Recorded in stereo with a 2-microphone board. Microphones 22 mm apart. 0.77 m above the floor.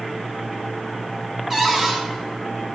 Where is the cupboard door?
5° right (ahead or behind), 1.5 m.